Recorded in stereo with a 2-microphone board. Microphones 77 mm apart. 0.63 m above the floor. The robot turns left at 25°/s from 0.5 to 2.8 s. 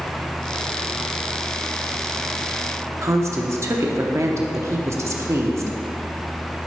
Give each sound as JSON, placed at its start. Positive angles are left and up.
{"t": 3.0, "sound": "a woman speaking", "side_deg": -35, "distance_m": 0.8}